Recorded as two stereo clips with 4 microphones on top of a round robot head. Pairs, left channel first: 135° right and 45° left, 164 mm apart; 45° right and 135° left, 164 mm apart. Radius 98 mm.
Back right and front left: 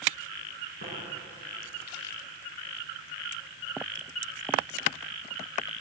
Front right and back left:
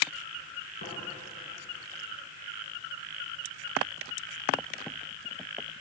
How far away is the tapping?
About 9.5 m.